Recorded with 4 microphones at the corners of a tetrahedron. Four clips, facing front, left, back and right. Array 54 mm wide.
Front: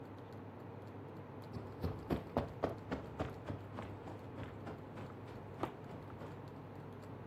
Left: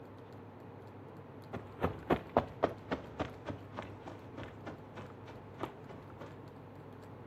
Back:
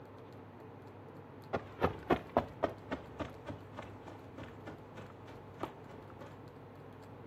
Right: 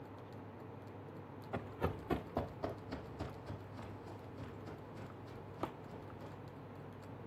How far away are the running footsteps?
About 0.6 m.